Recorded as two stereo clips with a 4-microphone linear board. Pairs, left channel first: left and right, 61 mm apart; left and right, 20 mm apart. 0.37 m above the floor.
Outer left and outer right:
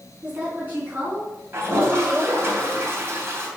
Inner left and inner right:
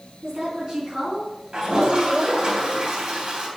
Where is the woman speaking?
30° right (ahead or behind), 4 m; by 2.5 s 45° right (ahead or behind), 5 m.